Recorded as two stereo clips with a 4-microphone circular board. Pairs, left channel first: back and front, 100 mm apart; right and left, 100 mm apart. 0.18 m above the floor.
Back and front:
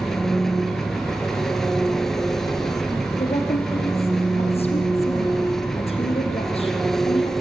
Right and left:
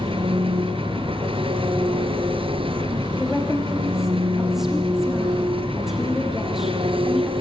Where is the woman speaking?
175° left, 5.5 m.